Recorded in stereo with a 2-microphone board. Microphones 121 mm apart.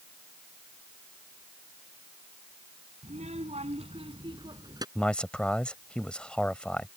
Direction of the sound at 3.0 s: 70° right (ahead or behind).